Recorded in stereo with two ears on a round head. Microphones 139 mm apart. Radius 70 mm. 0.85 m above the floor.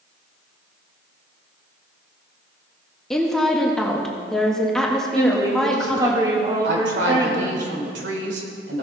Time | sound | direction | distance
3.1 | a woman speaking | 5° left (ahead or behind) | 1.4 m
5.2 | a woman speaking | 20° right (ahead or behind) | 2 m
6.6 | a woman speaking | 80° right | 3 m